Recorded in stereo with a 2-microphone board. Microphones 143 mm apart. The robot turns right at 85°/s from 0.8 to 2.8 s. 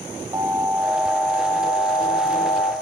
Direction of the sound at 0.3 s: 15° right (ahead or behind).